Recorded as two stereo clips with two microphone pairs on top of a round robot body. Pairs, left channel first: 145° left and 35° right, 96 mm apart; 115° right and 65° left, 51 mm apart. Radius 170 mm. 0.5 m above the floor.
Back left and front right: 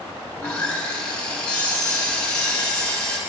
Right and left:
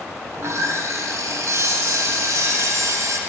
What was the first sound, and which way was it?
Sawing, 65° left.